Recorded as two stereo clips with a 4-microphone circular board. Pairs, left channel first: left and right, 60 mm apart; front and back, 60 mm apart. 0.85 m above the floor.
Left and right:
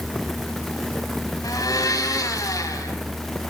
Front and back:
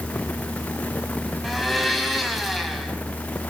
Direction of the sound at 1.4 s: 90° left.